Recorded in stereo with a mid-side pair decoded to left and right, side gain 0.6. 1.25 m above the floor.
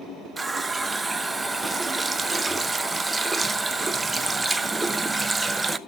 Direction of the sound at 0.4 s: 20° right.